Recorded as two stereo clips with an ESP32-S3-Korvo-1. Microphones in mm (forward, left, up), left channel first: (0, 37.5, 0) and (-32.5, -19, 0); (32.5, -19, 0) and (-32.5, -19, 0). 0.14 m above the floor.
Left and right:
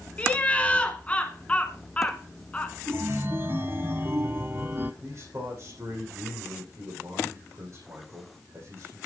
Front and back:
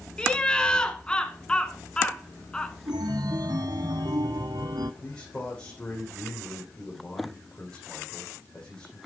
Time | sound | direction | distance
0.2 | laughter | 45° left | 1.5 m
2.9 | a chime | 175° right | 0.8 m
5.0 | a man speaking | 75° right | 5.5 m